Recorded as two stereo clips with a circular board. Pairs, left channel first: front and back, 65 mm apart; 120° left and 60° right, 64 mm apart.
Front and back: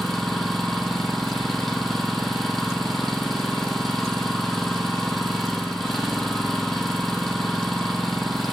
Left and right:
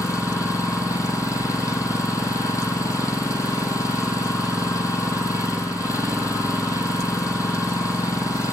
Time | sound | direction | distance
0.0 | an engine running | 90° left | 1.0 m